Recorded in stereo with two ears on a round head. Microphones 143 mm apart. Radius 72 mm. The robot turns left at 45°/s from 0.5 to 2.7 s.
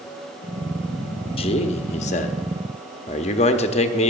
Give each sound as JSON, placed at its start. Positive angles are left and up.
{"t": 1.4, "sound": "a man speaking", "azimuth_deg": 125, "distance_m": 0.8}